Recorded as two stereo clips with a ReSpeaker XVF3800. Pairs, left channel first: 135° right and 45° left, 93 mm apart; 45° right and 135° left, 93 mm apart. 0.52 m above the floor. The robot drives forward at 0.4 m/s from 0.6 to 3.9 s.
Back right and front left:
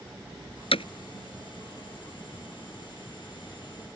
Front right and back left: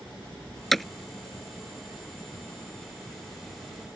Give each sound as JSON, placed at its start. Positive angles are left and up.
{"t": 0.7, "sound": "hammering", "azimuth_deg": -135}